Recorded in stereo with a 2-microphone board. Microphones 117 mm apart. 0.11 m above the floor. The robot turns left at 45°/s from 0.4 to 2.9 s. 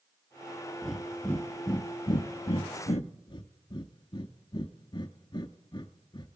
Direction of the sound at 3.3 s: 40° left (ahead or behind).